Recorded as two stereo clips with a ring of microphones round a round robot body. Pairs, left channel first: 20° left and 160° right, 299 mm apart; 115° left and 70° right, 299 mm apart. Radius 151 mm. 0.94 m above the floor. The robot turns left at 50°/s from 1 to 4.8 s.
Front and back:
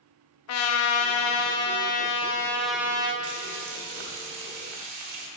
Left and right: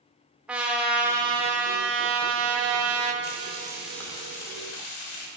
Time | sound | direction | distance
0.5 | a trumpet | 15° left | 0.7 m
3.2 | frying | 125° right | 1.4 m